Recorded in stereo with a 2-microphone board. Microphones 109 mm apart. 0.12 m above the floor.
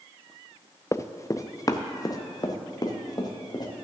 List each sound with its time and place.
0.9 s running footsteps: 25° left (ahead or behind), 0.6 m; by 3.8 s 40° left (ahead or behind), 2.5 m